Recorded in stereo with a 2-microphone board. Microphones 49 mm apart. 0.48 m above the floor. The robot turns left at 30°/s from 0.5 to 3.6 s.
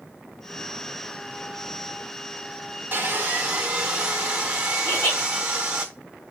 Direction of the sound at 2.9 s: 35° right (ahead or behind).